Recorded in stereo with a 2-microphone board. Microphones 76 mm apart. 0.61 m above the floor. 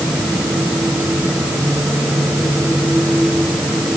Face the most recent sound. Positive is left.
No sound to turn to.